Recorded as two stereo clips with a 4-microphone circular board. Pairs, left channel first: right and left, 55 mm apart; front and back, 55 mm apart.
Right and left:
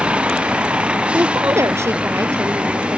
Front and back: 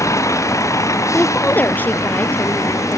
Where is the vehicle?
20° left.